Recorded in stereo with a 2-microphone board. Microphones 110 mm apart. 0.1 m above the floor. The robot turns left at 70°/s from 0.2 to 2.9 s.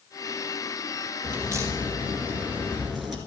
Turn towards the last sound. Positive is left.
turn(degrees=0)  # may be behind; listen again after turning